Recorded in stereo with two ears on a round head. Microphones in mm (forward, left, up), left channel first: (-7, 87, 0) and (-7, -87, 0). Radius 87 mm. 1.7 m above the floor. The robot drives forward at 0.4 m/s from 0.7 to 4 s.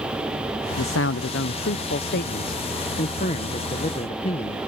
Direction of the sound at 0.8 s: 75° left (ahead or behind).